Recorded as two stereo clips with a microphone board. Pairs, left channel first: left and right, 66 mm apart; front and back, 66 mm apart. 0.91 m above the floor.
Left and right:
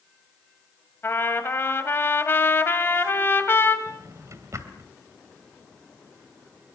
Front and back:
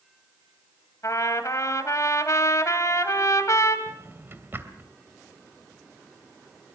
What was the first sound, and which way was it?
A trumpet, 40° left.